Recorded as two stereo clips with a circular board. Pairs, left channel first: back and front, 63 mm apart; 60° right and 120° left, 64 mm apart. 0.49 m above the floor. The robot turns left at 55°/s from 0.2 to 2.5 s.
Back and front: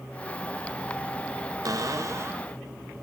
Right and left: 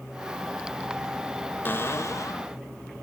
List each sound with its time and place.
1.6 s a cupboard door: 5° right, 1.0 m; by 2.5 s 50° right, 1.0 m